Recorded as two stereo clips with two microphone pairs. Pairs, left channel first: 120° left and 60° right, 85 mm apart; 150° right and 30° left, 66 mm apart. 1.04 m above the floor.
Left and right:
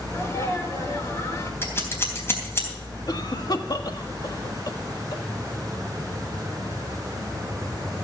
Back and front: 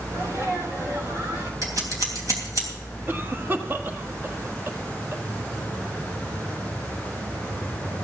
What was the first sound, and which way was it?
A sneeze, 65° left.